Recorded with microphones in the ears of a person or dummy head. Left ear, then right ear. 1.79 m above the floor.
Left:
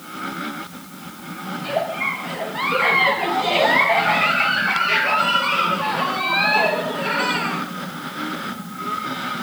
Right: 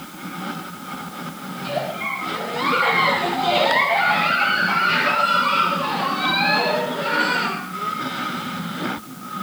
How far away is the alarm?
I don't hear an alarm.